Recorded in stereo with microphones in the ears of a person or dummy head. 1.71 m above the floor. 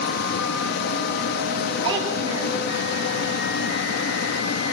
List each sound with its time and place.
0.0 s a fan: 60° left (ahead or behind), 2 m
1.8 s a child speaking: 25° right (ahead or behind), 7.5 m